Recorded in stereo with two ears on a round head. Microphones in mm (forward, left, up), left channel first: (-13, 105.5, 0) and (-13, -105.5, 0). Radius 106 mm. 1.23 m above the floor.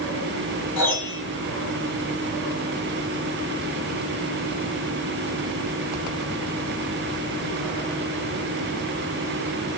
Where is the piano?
20° right (ahead or behind), 5 m.